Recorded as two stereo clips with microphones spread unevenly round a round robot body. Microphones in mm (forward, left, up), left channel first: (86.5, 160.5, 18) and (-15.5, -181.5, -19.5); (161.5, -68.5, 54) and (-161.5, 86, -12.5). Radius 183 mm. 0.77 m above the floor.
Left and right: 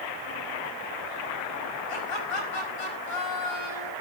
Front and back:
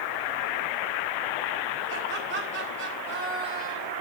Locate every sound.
1.9 s laughter: 95° left, 5.5 m